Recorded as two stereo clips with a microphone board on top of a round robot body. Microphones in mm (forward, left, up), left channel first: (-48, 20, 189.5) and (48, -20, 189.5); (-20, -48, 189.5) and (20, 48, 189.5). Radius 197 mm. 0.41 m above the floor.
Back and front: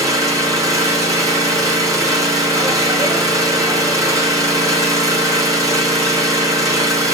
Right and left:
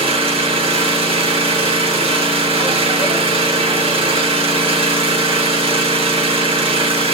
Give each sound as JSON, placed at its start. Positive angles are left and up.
{"t": 0.0, "sound": "an engine running", "azimuth_deg": 35, "distance_m": 5.0}